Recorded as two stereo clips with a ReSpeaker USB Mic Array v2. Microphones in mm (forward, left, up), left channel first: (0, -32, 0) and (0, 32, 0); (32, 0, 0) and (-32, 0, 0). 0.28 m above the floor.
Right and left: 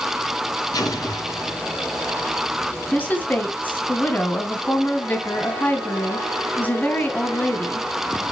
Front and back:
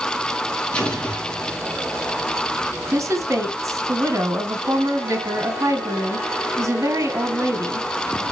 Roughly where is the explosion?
Right.